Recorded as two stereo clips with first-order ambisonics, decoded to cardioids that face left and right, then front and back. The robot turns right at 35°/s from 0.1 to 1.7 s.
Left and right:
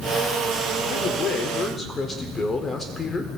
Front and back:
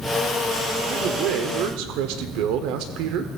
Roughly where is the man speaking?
Behind left.